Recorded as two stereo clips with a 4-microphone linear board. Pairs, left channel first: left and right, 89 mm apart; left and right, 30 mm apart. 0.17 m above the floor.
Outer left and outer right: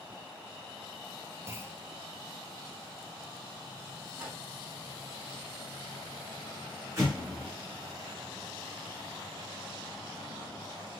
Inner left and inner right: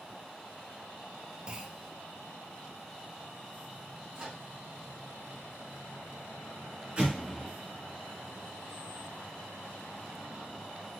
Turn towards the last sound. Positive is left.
turn(degrees=-30)  # may be behind; listen again after turning